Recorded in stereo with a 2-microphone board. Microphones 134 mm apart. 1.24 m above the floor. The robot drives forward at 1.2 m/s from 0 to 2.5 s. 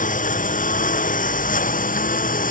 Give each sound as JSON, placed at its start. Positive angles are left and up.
{"t": 0.0, "sound": "a lawn mower", "side_deg": 75}